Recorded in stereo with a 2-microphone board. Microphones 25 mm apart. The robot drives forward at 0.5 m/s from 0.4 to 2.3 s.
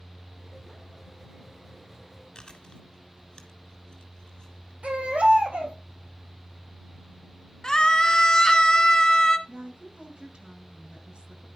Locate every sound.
2.4 s chewing: 35° left (ahead or behind), 1.5 m
4.8 s a baby crying: 65° right (ahead or behind), 3 m
7.6 s a scream: 30° left (ahead or behind), 1.1 m
9.5 s a woman speaking: 45° right (ahead or behind), 1.6 m